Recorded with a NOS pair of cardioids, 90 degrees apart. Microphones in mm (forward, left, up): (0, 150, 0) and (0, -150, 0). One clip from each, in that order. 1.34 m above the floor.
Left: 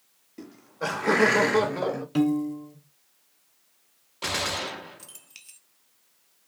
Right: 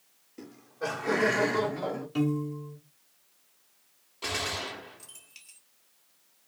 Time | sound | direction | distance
0.4 | laughter | 5° left | 0.5 m
2.1 | a piano | 35° left | 0.6 m
4.2 | a gunshot | 25° left | 0.5 m